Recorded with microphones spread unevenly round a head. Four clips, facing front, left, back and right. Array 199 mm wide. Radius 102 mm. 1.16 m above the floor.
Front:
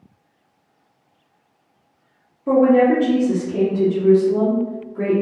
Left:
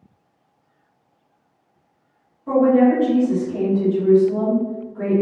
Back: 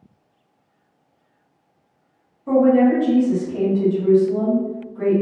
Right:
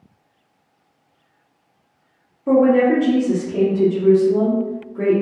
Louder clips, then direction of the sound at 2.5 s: Right 1 dB, front 1 dB; 45° right.